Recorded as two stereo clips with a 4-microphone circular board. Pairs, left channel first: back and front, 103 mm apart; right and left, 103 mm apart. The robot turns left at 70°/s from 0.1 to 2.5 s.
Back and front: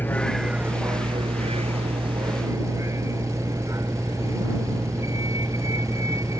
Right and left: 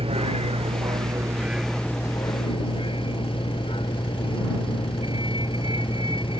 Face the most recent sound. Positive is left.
turn(degrees=-60)